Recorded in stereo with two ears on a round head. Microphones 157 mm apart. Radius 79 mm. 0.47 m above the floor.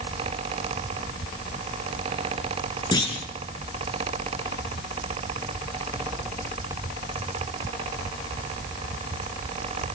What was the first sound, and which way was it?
A clunk, 25° left (ahead or behind).